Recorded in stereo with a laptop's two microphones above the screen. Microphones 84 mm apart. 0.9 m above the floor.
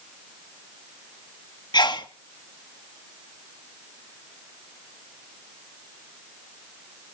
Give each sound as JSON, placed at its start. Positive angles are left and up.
{"t": 1.7, "sound": "a sneeze", "side_deg": 60, "distance_m": 1.5}